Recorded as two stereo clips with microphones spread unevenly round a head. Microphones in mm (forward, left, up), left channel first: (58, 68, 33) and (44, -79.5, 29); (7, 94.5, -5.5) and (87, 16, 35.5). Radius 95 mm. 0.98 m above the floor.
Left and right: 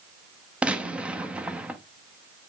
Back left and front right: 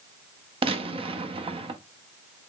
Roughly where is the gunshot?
Ahead.